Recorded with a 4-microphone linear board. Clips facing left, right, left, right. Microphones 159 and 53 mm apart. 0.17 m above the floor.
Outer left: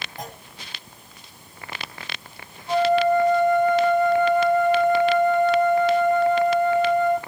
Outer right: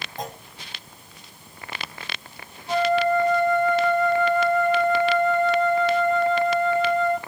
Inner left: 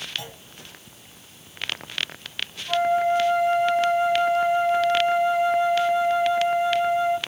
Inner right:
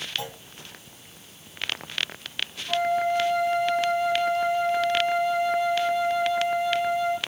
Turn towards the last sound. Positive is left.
turn(degrees=20)  # may be behind; listen again after turning